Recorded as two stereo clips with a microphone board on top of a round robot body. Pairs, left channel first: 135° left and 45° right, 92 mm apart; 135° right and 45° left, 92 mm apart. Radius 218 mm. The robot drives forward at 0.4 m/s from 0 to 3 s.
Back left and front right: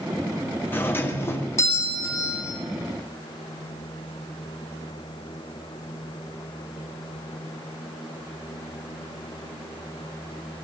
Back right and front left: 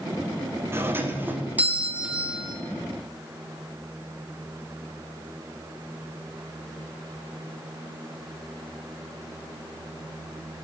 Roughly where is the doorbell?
Left.